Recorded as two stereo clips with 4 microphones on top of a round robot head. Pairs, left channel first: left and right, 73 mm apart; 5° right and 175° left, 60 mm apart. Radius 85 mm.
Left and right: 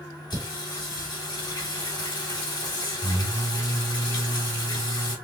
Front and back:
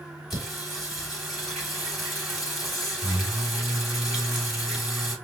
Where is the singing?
90° left, 3 m.